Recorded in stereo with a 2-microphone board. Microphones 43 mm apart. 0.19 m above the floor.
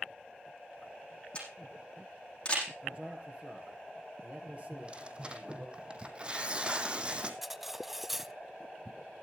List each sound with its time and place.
1.4 s a camera shutter: 25° left (ahead or behind), 8 m
2.8 s a man speaking: 35° right (ahead or behind), 4 m
4.7 s tearing paper: 25° right (ahead or behind), 1.7 m
7.4 s cutlery clinking: 5° right (ahead or behind), 0.6 m